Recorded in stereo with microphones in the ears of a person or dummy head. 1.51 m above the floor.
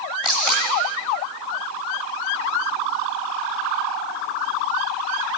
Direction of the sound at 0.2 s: 5° right (ahead or behind).